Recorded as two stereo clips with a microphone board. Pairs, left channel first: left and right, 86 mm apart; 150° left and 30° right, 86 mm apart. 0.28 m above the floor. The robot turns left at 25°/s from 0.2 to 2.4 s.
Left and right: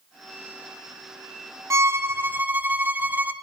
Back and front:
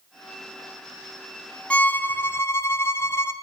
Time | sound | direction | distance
1.7 | a violin | 135° right | 0.8 m